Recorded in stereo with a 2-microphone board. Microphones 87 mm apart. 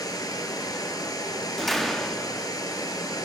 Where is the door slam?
5° left (ahead or behind), 0.5 m.